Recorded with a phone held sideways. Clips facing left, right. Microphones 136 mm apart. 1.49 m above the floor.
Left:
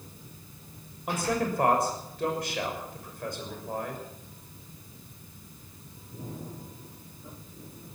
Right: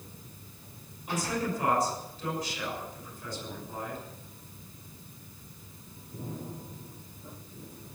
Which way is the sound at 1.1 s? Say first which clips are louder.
Left 3 dB; 65° left (ahead or behind).